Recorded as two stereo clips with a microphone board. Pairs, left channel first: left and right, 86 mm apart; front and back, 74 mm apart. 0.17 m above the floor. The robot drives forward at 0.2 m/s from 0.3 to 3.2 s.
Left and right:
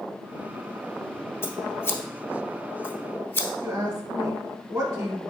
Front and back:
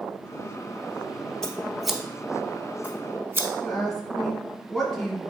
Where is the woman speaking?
85° right, 1.2 m.